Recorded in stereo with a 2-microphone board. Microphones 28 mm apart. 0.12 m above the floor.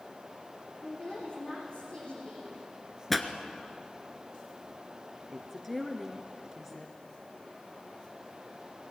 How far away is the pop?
About 1.4 m.